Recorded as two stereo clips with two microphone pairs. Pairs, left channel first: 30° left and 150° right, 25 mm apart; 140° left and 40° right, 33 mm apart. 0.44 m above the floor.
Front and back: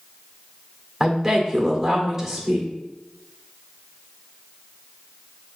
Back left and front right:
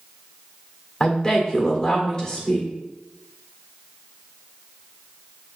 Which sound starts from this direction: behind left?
A woman speaking, at 1.0 s.